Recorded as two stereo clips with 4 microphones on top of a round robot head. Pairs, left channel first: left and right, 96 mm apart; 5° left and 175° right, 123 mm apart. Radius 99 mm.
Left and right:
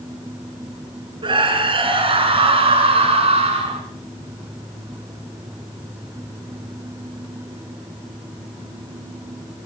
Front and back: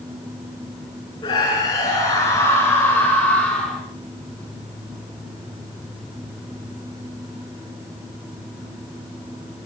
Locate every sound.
1.2 s a scream: 60° right, 6 m; by 3.8 s 85° right, 5.5 m